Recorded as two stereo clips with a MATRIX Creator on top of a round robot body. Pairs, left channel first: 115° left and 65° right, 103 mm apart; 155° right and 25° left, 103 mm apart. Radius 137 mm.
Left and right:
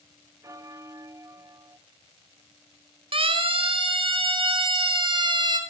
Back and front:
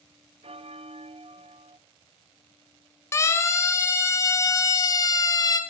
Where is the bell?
5° right, 0.6 m.